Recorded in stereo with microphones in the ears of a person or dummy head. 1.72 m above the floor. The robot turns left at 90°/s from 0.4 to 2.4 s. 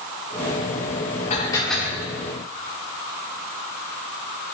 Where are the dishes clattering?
35° left, 3.5 m; by 2.1 s 40° right, 3.5 m.